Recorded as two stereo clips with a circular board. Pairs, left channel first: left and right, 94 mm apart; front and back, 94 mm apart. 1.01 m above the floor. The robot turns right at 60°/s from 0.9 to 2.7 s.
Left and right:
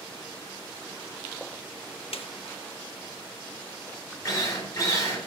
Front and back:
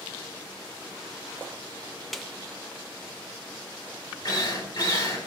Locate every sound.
2.1 s a snare drum: 90° left, 0.9 m; by 2.3 s 95° left, 0.9 m
4.2 s a drill: 35° left, 4 m